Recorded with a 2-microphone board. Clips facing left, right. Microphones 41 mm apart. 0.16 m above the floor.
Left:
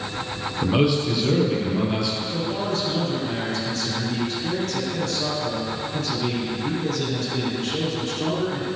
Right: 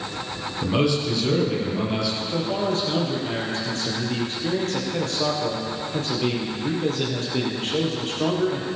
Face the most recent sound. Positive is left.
turn(degrees=-40)  # may be behind; listen again after turning